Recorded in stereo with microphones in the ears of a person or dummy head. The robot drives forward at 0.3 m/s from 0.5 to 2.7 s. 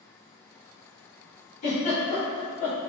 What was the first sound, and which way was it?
A giggle, 45° left (ahead or behind).